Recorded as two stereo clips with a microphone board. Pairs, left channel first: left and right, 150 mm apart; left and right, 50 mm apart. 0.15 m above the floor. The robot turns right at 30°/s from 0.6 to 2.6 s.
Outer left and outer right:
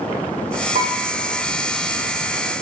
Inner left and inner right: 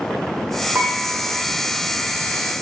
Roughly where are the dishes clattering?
Right.